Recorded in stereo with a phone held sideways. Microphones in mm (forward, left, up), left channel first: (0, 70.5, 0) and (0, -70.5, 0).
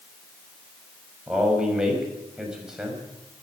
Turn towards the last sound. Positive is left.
turn(degrees=-5)  # may be behind; listen again after turning